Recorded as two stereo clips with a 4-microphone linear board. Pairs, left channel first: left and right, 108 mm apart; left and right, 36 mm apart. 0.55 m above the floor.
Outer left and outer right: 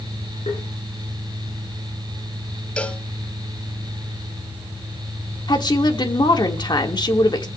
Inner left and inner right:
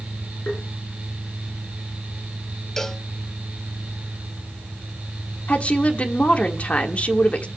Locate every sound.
0.5 s tapping: 80° left, 9.5 m
2.8 s a cowbell: 10° left (ahead or behind), 0.9 m
5.5 s a woman speaking: 40° left (ahead or behind), 1.5 m